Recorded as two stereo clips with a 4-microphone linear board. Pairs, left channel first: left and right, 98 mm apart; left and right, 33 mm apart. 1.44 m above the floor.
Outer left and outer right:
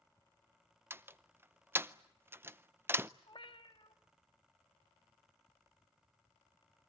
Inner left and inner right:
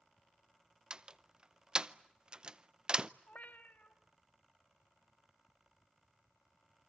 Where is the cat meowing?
55° left (ahead or behind), 1.3 m.